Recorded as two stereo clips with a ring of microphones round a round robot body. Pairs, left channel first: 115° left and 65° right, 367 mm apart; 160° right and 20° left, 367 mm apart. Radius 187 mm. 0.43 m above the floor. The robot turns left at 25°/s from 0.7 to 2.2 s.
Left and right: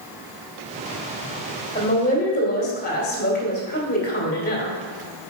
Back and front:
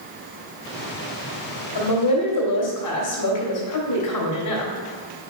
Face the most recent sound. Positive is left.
turn(degrees=175)